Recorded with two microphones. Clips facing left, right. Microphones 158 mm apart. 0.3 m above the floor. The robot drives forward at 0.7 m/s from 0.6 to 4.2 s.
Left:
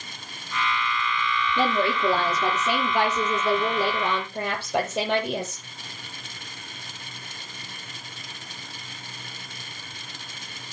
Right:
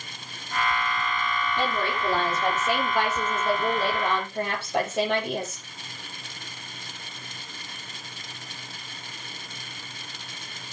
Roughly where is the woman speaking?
Left.